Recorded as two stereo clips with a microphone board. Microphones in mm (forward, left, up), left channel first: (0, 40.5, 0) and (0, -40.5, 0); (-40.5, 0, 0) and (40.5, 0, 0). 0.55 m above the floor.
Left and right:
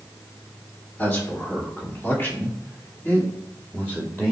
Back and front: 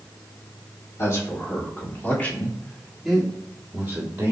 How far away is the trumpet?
I don't hear a trumpet.